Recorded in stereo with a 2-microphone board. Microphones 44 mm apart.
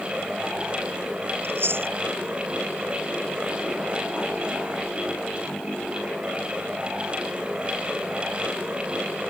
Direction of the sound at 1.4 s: 60° right (ahead or behind).